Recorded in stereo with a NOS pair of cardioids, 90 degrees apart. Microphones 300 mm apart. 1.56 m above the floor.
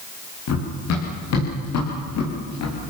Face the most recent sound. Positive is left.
turn(degrees=65)